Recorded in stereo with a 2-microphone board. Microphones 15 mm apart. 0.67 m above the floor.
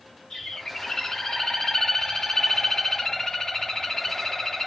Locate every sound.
0.3 s a bird: 70° left (ahead or behind), 4.5 m